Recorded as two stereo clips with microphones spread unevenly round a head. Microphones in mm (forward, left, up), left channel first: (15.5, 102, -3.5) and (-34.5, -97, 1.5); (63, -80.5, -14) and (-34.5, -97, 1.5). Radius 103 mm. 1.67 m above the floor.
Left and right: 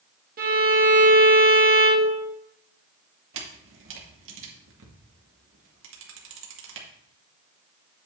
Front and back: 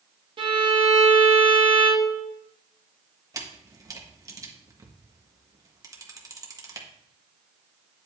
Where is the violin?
150° right, 1.7 m.